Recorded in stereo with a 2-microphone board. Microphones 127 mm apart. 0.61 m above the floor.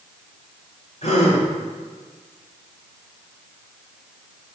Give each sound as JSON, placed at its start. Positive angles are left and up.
{"t": 1.0, "sound": "a gasp", "side_deg": 60, "distance_m": 3.5}